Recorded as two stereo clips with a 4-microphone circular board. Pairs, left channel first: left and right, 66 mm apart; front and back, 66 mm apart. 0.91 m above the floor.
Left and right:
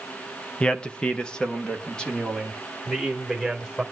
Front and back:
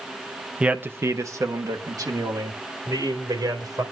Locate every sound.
0.6 s a man speaking: 135° left, 0.6 m; by 3.8 s 170° left, 3.5 m